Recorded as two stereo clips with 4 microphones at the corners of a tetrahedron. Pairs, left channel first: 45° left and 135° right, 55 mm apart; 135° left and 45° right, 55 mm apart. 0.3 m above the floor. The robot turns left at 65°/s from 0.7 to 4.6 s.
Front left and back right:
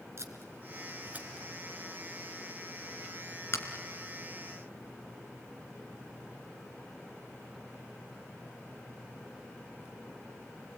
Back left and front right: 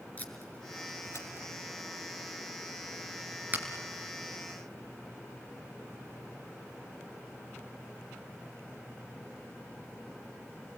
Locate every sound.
0.2 s tape being pulled: 165° right, 3 m; by 3.6 s 5° left, 3 m